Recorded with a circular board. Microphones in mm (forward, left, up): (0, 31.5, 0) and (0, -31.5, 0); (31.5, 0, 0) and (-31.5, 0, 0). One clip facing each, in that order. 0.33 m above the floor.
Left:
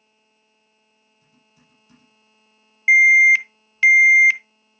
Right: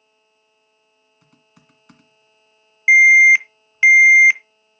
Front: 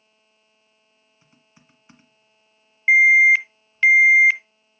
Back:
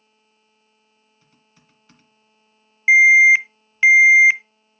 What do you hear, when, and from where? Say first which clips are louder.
1.2 s typing on a keyboard: right 5 dB, front 3 dB; 70° right, 1.7 m
2.9 s an alarm: right 3 dB, back 2 dB; 125° right, 0.6 m